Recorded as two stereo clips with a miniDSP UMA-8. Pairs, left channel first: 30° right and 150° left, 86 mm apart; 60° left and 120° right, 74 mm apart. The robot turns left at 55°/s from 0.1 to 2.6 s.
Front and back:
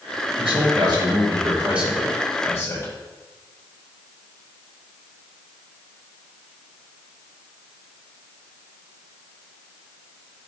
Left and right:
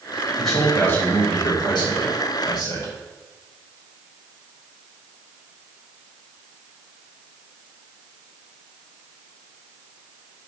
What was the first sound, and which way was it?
A man speaking, 150° left.